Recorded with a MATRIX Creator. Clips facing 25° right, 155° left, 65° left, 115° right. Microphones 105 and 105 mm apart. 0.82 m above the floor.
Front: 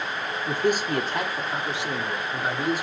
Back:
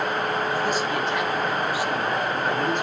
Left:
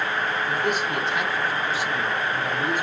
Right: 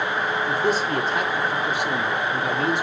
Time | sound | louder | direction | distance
0.5 | a man speaking | even, right 3 dB | 50° right | 1.6 m